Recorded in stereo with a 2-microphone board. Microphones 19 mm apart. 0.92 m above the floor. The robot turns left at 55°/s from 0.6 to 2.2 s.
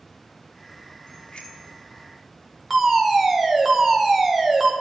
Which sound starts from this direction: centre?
A fire alarm, at 2.7 s.